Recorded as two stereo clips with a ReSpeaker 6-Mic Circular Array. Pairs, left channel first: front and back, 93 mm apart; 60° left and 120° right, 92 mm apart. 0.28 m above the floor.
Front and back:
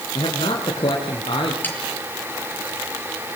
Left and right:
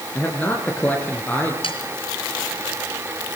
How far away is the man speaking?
About 3.5 m.